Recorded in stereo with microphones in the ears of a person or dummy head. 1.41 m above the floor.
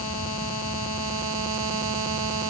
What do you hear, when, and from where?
Only background noise.